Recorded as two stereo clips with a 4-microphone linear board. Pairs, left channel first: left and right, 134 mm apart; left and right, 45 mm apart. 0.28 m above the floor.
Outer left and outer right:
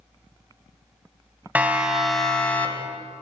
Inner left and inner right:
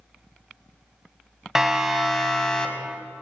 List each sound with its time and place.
1.6 s a siren: 10° right (ahead or behind), 3 m; by 3.0 s 20° left (ahead or behind), 3 m